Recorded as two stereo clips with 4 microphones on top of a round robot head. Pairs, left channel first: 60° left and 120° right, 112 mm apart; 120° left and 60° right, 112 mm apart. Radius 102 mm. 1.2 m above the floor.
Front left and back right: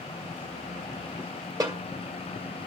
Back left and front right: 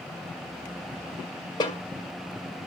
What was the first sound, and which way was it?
A snare drum, 175° left.